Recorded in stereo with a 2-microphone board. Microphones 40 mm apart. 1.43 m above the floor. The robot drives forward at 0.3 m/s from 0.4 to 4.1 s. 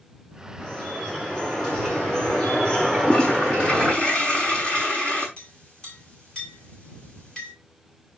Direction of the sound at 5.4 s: 20° left (ahead or behind).